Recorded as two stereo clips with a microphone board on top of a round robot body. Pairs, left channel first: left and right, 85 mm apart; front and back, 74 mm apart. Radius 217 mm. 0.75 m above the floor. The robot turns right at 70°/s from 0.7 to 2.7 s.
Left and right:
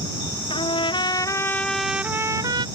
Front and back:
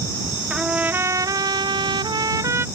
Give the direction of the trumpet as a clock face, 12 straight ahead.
9 o'clock.